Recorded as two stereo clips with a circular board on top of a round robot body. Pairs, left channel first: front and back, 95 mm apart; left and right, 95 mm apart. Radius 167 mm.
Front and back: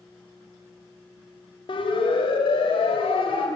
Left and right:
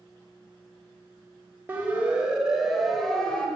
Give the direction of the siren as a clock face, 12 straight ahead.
1 o'clock.